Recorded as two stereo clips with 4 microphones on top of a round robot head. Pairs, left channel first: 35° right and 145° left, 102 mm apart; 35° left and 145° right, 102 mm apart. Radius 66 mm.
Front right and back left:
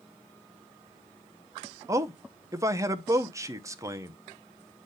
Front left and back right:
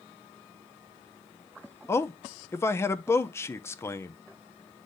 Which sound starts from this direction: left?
A man speaking, at 1.9 s.